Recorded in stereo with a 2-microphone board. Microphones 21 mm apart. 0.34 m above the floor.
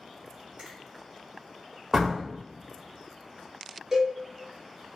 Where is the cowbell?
25° right (ahead or behind), 1.0 m.